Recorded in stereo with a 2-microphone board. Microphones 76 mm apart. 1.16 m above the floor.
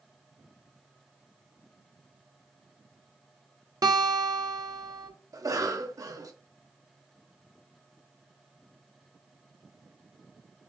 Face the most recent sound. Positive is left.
turn(degrees=-50)  # may be behind; listen again after turning